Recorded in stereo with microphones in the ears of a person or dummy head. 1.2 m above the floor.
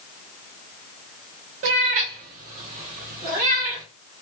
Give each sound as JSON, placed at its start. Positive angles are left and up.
{"t": 1.6, "sound": "a cat meowing", "side_deg": -35, "distance_m": 0.6}